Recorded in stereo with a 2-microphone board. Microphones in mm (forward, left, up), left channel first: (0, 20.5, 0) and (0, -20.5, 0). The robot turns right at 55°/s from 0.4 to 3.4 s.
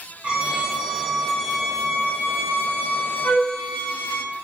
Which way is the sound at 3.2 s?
30° left (ahead or behind).